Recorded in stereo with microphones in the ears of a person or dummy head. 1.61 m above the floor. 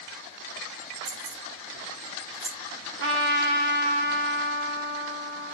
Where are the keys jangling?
60° right (ahead or behind), 2.5 m; by 2.5 s 75° right (ahead or behind), 3.5 m.